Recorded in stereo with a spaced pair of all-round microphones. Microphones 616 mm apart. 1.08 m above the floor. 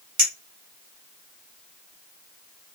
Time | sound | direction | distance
0.2 | a clink | 30° right (ahead or behind) | 1.6 m